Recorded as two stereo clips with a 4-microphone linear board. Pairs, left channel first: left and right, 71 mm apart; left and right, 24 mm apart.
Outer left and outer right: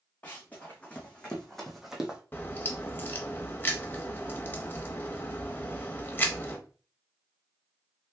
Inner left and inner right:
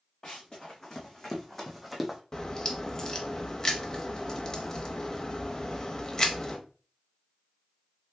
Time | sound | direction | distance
0.2 | running footsteps | 25° left (ahead or behind) | 1.5 m
2.3 | a crack | 25° left (ahead or behind) | 0.6 m